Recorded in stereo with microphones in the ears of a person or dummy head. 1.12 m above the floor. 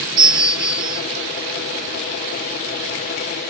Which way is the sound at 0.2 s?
20° right (ahead or behind).